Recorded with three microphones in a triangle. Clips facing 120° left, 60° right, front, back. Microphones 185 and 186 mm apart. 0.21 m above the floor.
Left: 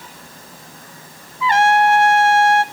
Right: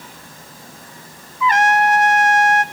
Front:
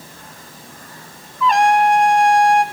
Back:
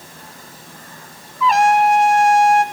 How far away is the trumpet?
About 0.6 m.